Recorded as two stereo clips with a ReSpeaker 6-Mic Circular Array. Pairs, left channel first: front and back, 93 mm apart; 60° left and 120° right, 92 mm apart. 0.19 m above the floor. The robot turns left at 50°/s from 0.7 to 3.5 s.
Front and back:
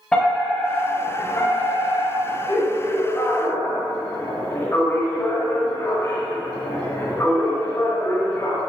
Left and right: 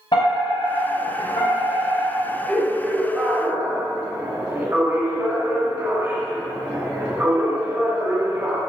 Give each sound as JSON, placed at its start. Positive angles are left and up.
{"t": 0.1, "sound": "a fire alarm", "azimuth_deg": 80, "distance_m": 6.5}